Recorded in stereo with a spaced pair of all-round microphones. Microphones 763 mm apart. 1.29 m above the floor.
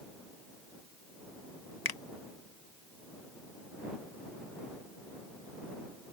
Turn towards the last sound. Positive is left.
turn(degrees=30)  # may be behind; listen again after turning